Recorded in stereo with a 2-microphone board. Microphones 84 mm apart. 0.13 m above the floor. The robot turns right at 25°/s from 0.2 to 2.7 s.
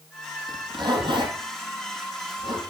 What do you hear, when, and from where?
0.5 s a zipper: 50° right (ahead or behind), 4 m; by 2.6 s 65° right (ahead or behind), 4 m